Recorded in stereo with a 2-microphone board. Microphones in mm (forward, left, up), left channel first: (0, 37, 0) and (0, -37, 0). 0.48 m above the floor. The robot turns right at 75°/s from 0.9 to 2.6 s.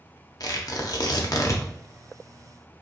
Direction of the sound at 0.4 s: 55° left (ahead or behind).